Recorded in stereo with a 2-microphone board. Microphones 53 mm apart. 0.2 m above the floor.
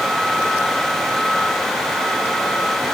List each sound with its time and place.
Only background noise.